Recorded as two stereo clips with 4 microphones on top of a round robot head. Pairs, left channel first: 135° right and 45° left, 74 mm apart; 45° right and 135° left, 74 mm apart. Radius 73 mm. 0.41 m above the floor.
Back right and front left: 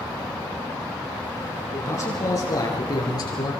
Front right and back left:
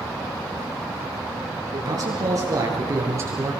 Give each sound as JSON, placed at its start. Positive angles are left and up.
{"t": 1.7, "sound": "a man speaking", "azimuth_deg": 170, "distance_m": 6.5}